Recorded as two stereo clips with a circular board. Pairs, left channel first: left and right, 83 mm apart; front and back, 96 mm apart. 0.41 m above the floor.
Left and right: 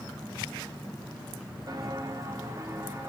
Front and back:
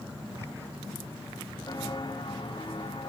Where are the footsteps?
45° right, 3 m; by 3.1 s 30° right, 4.5 m.